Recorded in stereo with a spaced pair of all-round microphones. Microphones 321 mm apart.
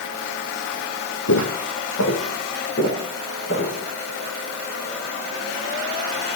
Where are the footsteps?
60° left (ahead or behind), 2.5 m; by 3.8 s 40° left (ahead or behind), 5.5 m.